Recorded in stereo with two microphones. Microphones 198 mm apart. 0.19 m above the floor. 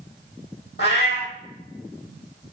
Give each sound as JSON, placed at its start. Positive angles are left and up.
{"t": 0.8, "sound": "a cat meowing", "side_deg": 70, "distance_m": 1.0}